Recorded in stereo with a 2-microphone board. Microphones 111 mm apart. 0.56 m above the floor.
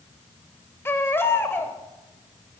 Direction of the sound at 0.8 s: 20° left (ahead or behind).